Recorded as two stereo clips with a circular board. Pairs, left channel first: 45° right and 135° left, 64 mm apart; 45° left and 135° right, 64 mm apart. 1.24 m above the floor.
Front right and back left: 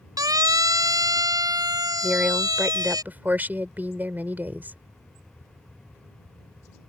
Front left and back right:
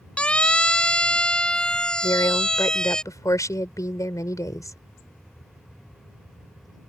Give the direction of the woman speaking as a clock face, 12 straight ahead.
10 o'clock.